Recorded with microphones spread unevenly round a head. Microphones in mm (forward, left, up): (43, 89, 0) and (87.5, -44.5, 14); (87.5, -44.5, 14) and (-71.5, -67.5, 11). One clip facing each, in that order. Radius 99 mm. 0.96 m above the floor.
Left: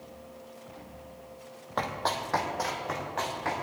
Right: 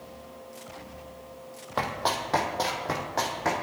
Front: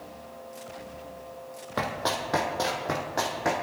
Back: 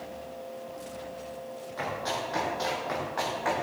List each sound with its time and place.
1.8 s running footsteps: 10° left, 2.5 m; by 3.5 s 35° right, 3 m